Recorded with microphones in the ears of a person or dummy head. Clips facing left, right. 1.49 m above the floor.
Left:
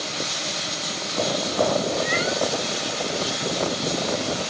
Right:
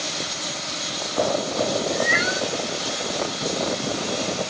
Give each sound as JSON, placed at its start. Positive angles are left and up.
{"t": 1.9, "sound": "a cat meowing", "side_deg": -15}